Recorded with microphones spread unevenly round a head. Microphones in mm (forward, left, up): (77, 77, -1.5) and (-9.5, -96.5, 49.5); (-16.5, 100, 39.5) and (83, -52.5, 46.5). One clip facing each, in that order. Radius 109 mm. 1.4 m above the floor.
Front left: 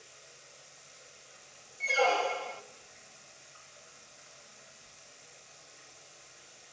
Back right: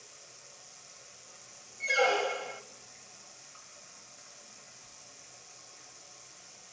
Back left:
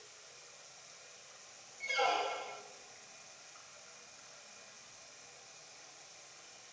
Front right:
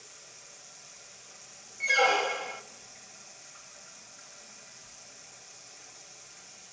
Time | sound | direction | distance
0.0 | running water | 95° right | 7 m
1.8 | a squeak | 55° right | 0.5 m